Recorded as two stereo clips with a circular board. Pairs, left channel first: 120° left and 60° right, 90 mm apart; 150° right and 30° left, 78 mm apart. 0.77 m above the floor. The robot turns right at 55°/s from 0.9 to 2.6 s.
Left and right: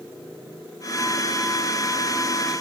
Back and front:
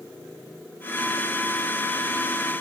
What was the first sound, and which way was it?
Only background noise.